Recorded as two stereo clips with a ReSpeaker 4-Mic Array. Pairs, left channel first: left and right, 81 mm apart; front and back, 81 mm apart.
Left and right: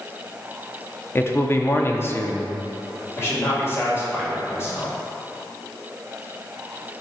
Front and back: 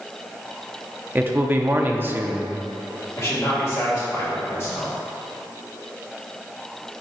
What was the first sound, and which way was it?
A man speaking, 130° left.